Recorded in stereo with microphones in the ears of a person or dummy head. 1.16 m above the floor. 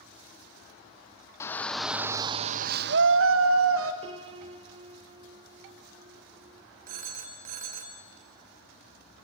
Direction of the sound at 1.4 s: 15° left (ahead or behind).